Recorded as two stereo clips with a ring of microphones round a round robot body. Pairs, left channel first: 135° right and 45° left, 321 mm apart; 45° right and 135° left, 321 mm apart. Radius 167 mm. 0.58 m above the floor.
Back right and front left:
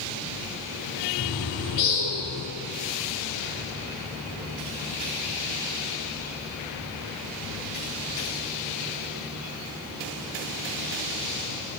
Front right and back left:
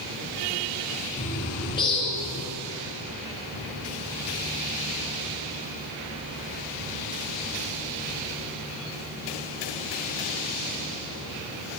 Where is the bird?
120° right, 3.5 m.